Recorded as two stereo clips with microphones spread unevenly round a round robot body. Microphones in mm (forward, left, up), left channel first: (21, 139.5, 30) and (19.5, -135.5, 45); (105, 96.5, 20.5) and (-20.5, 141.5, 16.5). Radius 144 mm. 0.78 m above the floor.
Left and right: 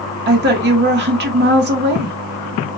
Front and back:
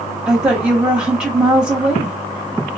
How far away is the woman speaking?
About 0.7 m.